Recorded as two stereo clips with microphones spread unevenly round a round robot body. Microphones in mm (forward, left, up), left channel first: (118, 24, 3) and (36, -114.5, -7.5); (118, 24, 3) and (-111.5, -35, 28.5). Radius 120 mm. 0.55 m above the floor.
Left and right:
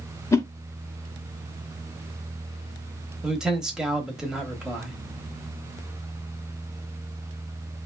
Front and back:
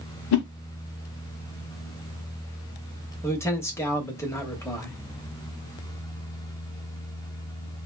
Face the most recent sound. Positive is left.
turn(degrees=-45)